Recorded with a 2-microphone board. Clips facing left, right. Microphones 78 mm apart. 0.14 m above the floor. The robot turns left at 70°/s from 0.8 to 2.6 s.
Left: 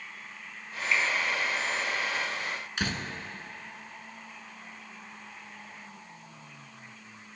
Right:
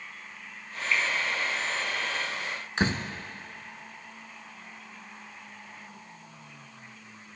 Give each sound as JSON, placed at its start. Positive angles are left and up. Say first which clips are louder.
{"t": 0.9, "sound": "a finger snap", "louder": "even", "side_deg": 10, "distance_m": 3.5}
{"t": 2.8, "sound": "a door slam", "louder": "right 6 dB", "side_deg": -35, "distance_m": 0.9}